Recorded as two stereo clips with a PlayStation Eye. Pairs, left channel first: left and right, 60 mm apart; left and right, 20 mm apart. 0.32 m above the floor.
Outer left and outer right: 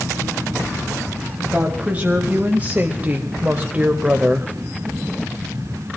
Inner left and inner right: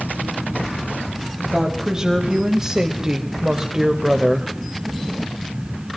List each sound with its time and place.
1.5 s a woman speaking: 25° right (ahead or behind), 1.7 m